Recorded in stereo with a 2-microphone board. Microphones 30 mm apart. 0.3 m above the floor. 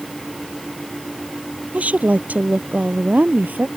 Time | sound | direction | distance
1.7 | a woman speaking | 60° right (ahead or behind) | ?